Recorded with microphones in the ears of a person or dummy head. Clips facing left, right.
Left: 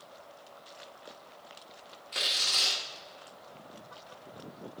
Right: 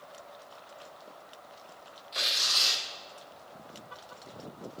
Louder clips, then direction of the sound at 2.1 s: Even; 35° left (ahead or behind).